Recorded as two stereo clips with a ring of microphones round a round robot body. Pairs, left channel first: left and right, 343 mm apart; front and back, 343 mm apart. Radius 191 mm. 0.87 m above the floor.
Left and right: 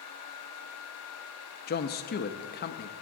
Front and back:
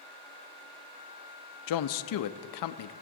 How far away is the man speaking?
About 0.6 m.